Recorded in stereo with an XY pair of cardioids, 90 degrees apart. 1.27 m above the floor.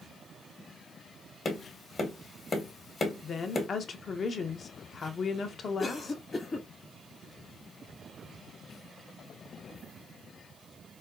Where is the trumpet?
I don't hear a trumpet.